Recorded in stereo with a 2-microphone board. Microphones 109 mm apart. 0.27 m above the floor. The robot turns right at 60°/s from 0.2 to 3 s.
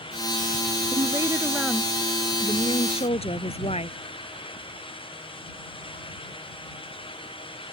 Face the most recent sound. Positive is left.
turn(degrees=75)